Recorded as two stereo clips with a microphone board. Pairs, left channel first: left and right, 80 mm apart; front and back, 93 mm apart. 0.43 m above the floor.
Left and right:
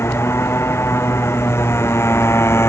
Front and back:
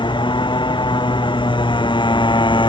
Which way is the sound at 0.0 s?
30° left.